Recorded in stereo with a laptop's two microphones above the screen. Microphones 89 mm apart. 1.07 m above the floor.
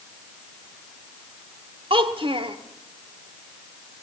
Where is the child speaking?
75° right (ahead or behind), 1.8 m.